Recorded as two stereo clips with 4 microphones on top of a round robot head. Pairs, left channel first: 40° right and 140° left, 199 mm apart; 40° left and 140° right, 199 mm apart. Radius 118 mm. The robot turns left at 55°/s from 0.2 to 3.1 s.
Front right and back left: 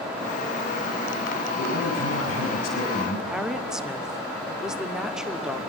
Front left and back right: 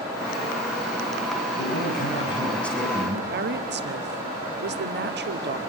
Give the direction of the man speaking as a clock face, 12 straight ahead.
12 o'clock.